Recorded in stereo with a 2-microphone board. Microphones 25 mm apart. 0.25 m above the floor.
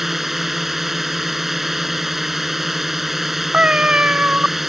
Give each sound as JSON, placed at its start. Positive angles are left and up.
{"t": 0.0, "sound": "a drone", "side_deg": -5}
{"t": 3.5, "sound": "a cat meowing", "side_deg": -45}